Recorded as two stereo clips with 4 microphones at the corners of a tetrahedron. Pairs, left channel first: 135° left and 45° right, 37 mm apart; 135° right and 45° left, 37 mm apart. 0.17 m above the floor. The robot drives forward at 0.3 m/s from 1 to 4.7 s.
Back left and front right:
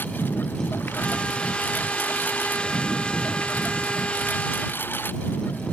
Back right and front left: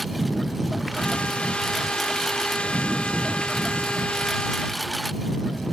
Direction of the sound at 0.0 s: 135° left.